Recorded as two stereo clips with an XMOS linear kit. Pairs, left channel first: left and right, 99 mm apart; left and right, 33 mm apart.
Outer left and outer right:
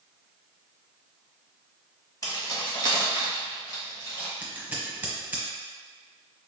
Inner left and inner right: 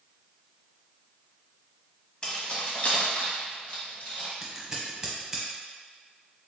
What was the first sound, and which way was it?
Keys jangling, 35° left (ahead or behind).